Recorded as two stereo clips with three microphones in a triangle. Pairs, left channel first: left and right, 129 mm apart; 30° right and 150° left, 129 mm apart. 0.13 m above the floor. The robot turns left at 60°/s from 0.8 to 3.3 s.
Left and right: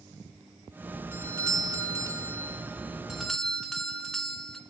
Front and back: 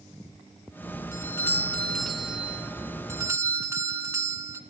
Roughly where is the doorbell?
Ahead right.